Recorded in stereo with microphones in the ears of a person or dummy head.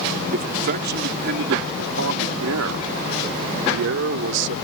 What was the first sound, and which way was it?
A man speaking, 50° right (ahead or behind).